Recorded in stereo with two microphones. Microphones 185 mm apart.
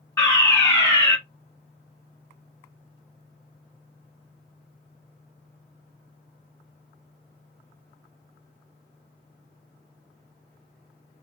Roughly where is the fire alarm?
Centre.